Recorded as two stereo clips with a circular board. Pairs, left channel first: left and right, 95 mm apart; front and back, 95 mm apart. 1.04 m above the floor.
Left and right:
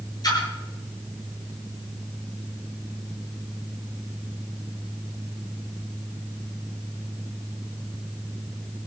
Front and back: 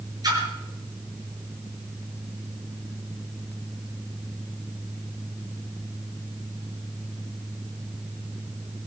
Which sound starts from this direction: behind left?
A splash, at 0.2 s.